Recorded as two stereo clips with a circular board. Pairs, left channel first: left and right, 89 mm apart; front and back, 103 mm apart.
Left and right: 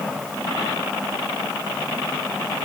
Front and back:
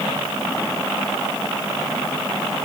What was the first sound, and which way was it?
Only background noise.